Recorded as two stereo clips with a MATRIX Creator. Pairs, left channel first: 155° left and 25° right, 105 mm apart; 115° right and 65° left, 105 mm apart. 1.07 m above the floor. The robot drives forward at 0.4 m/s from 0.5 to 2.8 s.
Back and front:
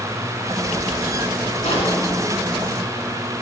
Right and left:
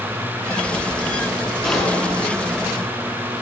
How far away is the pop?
About 4 m.